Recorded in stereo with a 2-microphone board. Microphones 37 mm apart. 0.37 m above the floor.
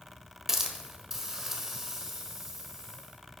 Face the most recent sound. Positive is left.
turn(degrees=-10)  # may be behind; listen again after turning